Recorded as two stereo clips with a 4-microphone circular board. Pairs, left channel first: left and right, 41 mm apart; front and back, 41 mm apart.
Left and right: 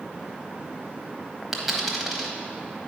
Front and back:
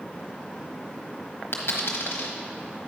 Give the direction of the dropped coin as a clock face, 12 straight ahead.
12 o'clock.